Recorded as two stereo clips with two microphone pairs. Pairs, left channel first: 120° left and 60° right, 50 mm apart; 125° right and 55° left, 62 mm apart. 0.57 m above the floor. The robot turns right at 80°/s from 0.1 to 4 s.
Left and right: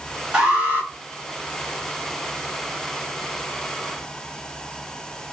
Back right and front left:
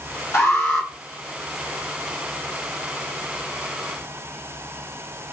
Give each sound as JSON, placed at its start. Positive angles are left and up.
{"t": 0.3, "sound": "an alarm", "azimuth_deg": -130, "distance_m": 1.4}